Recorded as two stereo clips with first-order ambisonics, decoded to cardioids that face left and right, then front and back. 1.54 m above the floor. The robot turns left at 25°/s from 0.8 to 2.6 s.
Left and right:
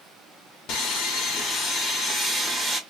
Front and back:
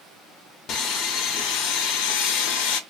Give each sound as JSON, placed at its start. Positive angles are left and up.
{"t": 0.7, "sound": "sawing", "azimuth_deg": 50, "distance_m": 0.7}